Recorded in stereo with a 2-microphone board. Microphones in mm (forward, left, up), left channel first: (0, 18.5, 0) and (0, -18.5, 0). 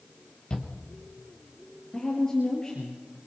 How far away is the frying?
No frying in this recording.